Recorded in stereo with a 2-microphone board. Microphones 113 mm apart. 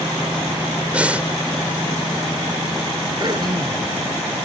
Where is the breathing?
10° right (ahead or behind).